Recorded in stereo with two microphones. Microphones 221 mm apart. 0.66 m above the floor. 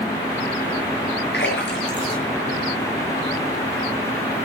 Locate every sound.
1.3 s a splash: 55° left (ahead or behind), 7.5 m